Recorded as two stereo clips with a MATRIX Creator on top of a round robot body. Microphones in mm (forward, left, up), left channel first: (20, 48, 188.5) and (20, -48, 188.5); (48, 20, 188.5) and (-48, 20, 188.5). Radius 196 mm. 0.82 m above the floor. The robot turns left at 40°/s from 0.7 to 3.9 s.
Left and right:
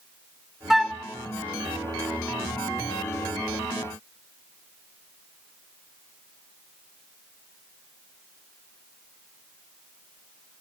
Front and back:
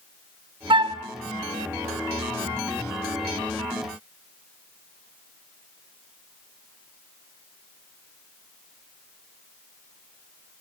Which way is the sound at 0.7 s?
175° right.